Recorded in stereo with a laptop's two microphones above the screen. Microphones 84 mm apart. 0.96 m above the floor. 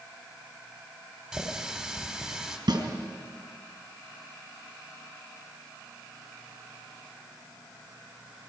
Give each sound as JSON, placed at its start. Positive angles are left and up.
{"t": 1.3, "sound": "a running tap", "side_deg": -5, "distance_m": 1.9}
{"t": 2.7, "sound": "a snare drum", "side_deg": -60, "distance_m": 4.5}